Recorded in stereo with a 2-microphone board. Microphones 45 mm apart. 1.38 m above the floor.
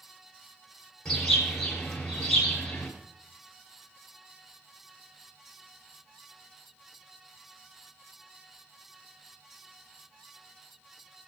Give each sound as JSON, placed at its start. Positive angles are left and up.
{"t": 1.1, "sound": "a bird", "side_deg": 10, "distance_m": 4.0}